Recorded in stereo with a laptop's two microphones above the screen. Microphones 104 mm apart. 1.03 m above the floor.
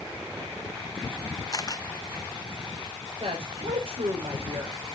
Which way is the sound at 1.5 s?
40° left (ahead or behind).